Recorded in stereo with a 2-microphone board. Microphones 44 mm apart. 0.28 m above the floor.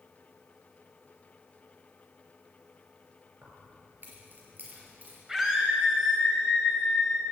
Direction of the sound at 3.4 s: 45° right (ahead or behind).